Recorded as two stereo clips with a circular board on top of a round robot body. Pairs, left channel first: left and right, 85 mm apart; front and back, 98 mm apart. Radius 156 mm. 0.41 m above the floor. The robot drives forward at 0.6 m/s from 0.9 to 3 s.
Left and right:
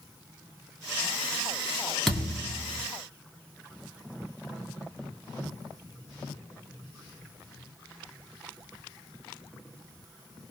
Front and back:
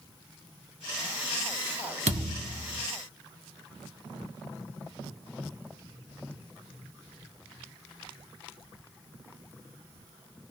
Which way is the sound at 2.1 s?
175° left.